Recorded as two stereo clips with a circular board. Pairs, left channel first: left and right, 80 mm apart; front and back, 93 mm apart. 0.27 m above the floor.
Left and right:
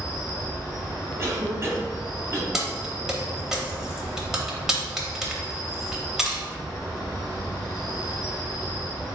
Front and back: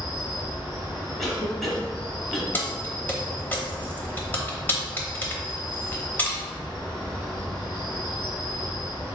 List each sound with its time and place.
0.0 s an insect: 80° left, 2.0 m
1.2 s a cough: 85° right, 1.1 m
2.5 s keys jangling: 20° right, 0.7 m